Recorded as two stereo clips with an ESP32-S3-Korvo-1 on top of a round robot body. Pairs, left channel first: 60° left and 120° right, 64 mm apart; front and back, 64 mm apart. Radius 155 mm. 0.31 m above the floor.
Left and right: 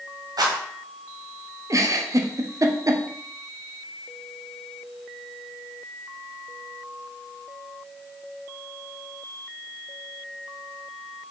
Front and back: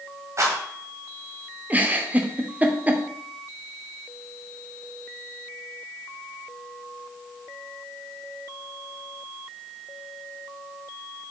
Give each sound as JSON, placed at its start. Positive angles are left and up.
{"t": 0.4, "sound": "a rattle", "azimuth_deg": -135, "distance_m": 1.4}
{"t": 1.7, "sound": "a giggle", "azimuth_deg": -120, "distance_m": 0.8}